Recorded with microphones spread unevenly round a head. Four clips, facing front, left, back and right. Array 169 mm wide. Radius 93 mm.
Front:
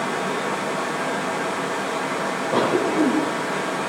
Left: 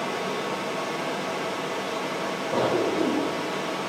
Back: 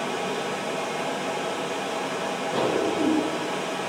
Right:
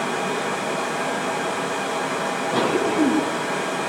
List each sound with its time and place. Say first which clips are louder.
0.0 s running water: right 4 dB, front 4 dB; 65° right, 0.9 m
2.5 s a cough: right 2 dB, front 5 dB; 5° left, 3.5 m